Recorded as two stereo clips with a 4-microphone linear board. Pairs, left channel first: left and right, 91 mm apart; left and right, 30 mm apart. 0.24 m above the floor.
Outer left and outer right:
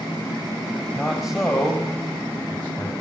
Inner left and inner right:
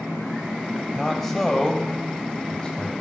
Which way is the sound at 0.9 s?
5° right (ahead or behind).